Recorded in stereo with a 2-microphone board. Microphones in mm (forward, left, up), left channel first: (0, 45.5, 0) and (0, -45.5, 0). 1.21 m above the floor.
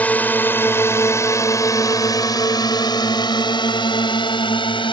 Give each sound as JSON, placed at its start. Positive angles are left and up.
{"t": 0.0, "sound": "a drone", "side_deg": 15}